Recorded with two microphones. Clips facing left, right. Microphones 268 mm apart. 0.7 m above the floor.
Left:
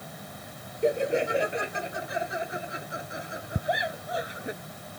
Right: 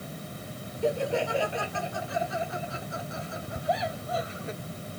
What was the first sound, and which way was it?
Laughter, 20° left (ahead or behind).